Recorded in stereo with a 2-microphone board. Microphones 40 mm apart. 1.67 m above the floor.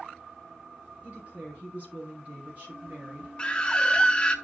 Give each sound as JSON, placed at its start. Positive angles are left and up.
{"t": 1.0, "sound": "a woman speaking", "side_deg": -40, "distance_m": 4.5}
{"t": 3.4, "sound": "a scream", "side_deg": 20, "distance_m": 0.8}